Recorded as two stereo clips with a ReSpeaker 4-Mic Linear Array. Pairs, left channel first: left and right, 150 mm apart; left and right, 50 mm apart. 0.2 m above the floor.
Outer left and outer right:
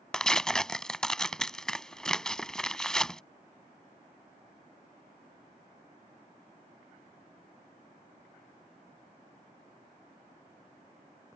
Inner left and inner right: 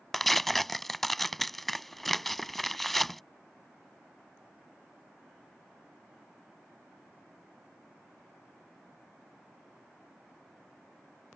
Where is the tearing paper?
5° left (ahead or behind).